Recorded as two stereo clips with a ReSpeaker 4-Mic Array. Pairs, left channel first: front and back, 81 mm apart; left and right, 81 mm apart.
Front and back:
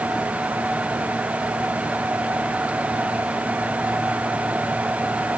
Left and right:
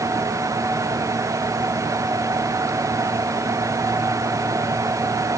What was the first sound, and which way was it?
Only background noise.